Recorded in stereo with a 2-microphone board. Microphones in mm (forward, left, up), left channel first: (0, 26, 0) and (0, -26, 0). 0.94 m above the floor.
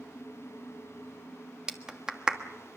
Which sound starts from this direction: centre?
A clap, at 1.7 s.